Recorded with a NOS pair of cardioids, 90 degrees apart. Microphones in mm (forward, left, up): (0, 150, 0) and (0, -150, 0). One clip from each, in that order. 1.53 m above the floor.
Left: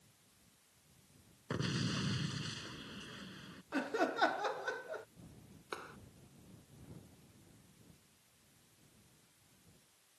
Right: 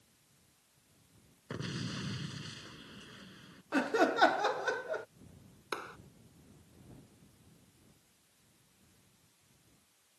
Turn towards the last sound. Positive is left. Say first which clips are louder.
# right 6 dB
turn(degrees=-40)